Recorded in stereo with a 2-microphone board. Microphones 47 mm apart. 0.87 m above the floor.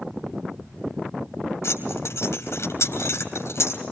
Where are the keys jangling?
80° left, 3.5 m.